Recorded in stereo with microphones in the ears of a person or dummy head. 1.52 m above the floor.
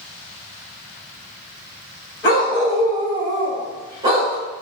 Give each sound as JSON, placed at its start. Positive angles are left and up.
{"t": 2.2, "sound": "a dog barking", "side_deg": 25, "distance_m": 1.0}